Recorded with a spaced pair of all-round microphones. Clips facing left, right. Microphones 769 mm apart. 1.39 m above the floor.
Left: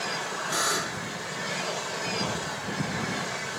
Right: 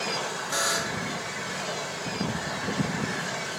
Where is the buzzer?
10° right (ahead or behind), 0.9 m.